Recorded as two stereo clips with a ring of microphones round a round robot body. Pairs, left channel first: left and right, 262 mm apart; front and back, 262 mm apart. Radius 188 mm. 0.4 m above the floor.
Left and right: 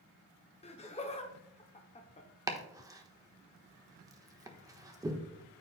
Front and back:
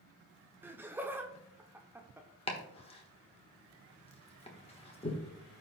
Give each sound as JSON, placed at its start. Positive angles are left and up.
{"t": 0.6, "sound": "laughter", "azimuth_deg": 110, "distance_m": 0.8}
{"t": 2.5, "sound": "chopping", "azimuth_deg": -30, "distance_m": 1.2}